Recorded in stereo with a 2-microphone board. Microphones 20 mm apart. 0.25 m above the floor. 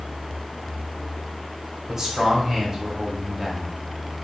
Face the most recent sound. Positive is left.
turn(degrees=-20)  # may be behind; listen again after turning